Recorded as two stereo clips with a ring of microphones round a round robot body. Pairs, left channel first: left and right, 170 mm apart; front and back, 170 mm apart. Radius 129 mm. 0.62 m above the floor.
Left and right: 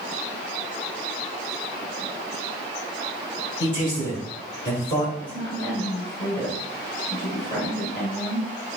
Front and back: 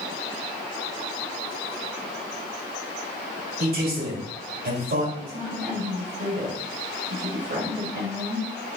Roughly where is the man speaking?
Behind left.